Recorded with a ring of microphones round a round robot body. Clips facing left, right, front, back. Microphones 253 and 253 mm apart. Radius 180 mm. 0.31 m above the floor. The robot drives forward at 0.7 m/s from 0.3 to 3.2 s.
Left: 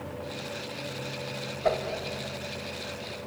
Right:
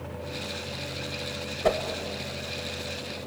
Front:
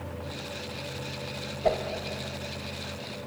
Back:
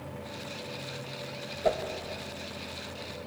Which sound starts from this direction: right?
A whoosh, at 1.6 s.